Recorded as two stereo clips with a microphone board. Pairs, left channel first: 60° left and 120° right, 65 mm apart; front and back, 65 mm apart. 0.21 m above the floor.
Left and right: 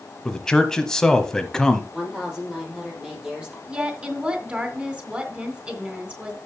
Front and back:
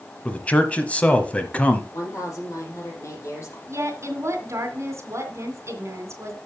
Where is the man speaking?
5° right, 1.0 m.